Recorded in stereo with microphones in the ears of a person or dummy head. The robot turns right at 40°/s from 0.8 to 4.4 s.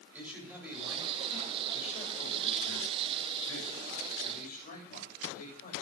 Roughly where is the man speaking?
Ahead.